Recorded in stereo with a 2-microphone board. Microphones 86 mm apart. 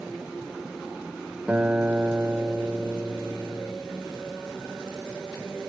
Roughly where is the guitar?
Centre.